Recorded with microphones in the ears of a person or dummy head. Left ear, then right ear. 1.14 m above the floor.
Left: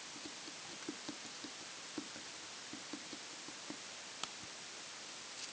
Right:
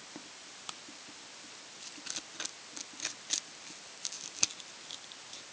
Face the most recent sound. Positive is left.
No sound to turn to.